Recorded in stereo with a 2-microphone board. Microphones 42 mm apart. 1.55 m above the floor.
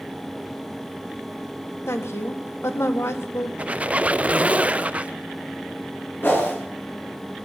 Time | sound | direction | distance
1.9 | a woman speaking | 85° left | 1.6 m
3.6 | a squeak | 30° right (ahead or behind) | 0.5 m
6.2 | a whoosh | 60° left (ahead or behind) | 8.5 m